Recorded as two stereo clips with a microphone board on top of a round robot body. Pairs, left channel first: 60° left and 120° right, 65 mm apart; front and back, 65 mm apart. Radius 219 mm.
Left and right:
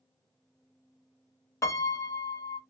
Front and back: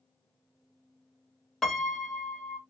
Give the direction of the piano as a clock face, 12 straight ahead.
9 o'clock.